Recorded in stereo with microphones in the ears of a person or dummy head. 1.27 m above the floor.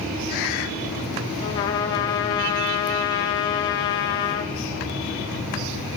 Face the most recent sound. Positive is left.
turn(degrees=20)  # may be behind; listen again after turning